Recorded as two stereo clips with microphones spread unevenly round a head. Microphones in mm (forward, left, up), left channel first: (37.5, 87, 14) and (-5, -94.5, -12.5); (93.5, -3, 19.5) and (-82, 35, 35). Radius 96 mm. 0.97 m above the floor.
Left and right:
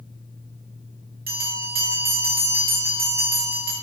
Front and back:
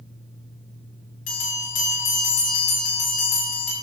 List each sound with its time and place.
1.3 s a bell: 60° right, 6.5 m